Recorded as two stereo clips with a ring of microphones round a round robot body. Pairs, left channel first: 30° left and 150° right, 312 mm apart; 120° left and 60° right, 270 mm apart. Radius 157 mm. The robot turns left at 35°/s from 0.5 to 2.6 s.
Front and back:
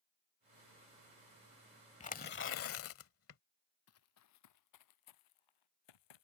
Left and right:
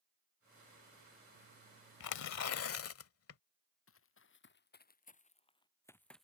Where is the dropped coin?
No dropped coin in this recording.